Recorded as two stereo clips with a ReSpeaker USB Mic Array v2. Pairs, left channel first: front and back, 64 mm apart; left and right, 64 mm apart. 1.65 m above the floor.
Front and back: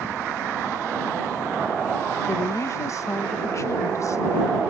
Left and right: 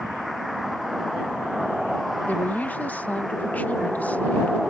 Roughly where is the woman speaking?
Ahead left.